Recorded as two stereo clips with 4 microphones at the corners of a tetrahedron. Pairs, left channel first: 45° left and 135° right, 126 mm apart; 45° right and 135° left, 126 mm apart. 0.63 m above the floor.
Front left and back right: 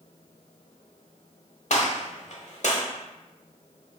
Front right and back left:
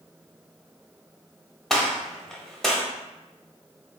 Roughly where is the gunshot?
Ahead left.